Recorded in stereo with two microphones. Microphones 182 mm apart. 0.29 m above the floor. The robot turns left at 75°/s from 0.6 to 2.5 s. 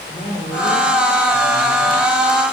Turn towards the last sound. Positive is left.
turn(degrees=-10)